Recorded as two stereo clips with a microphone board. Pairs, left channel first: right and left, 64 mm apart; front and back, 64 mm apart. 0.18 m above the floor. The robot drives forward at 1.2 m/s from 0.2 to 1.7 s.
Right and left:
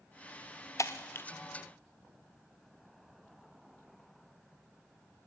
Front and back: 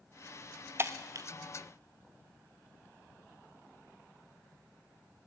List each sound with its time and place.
0.8 s breaking glass: 130° right, 0.9 m; by 1.3 s 150° right, 1.4 m